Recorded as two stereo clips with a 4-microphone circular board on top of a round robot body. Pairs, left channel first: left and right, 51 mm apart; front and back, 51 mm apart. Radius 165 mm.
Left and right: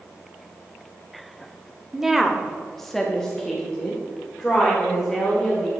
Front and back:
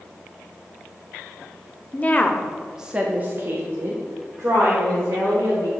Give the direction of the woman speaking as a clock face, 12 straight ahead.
12 o'clock.